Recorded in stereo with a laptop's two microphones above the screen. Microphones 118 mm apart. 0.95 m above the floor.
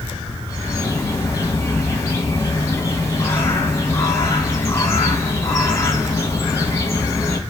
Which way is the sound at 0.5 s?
25° left (ahead or behind).